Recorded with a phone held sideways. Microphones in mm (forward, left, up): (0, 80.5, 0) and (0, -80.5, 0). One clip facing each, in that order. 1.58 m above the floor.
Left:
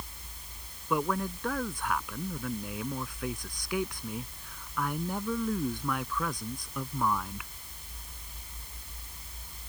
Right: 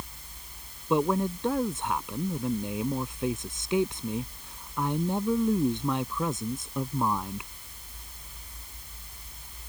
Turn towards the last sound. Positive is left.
turn(degrees=-25)  # may be behind; listen again after turning